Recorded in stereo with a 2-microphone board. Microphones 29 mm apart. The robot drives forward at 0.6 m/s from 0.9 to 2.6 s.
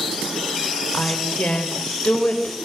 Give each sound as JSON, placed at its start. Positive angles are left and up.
{"t": 0.9, "sound": "a woman speaking", "side_deg": 55, "distance_m": 5.0}